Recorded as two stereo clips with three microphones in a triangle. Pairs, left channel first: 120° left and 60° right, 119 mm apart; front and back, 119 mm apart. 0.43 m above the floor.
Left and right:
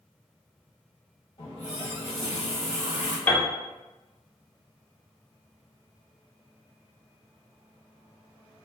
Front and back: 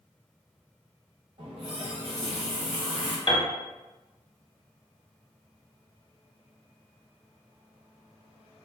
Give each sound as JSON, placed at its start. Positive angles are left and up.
{"t": 1.4, "sound": "a running tap", "azimuth_deg": 155, "distance_m": 1.2}
{"t": 3.3, "sound": "a piano", "azimuth_deg": 45, "distance_m": 0.7}